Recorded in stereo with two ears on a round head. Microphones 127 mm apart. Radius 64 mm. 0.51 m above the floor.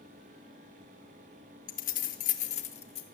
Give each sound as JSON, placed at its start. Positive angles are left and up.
{"t": 1.7, "sound": "keys jangling", "side_deg": 60, "distance_m": 0.8}